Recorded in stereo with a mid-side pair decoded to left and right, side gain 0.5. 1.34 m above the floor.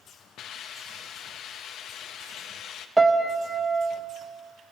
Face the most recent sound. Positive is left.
turn(degrees=-10)